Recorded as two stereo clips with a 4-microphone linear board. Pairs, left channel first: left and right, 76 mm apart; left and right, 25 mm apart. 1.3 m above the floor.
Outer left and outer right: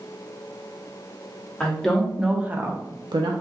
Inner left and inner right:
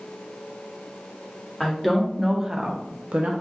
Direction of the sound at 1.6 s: 5° left (ahead or behind).